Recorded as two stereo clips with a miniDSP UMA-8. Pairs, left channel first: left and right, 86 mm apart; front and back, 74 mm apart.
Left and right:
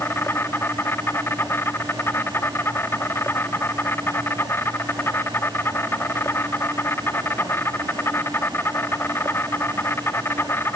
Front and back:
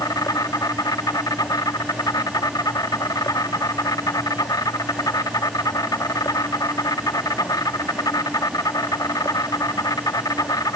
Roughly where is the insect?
Ahead left.